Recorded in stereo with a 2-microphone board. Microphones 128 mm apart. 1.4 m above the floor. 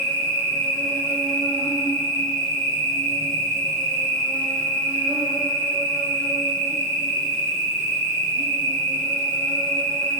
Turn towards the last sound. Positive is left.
turn(degrees=55)  # may be behind; listen again after turning